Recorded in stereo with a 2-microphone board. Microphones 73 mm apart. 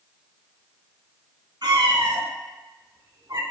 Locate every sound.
1.6 s a cat meowing: 70° right (ahead or behind), 1.3 m; by 3.4 s 60° right (ahead or behind), 0.6 m